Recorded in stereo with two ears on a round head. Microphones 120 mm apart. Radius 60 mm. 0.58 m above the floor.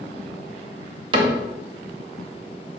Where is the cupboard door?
35° right (ahead or behind), 0.6 m.